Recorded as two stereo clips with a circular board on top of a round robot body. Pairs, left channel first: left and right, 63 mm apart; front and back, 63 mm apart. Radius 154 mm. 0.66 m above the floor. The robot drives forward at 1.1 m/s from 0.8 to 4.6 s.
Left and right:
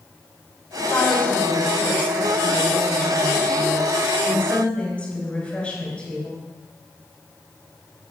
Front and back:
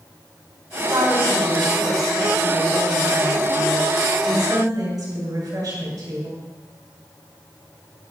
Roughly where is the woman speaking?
Behind left.